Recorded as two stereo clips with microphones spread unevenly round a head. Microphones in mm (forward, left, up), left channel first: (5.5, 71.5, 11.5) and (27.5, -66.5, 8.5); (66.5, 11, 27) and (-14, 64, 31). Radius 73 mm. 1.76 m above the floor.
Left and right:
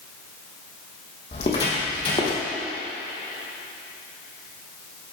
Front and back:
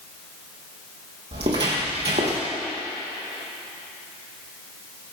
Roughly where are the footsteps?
Behind left.